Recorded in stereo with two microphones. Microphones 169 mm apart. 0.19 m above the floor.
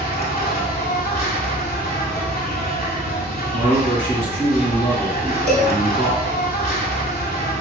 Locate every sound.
0.0 s an insect: 65° left (ahead or behind), 0.7 m
3.5 s a man speaking: 35° right (ahead or behind), 1.9 m
5.5 s a cowbell: 60° left (ahead or behind), 0.7 m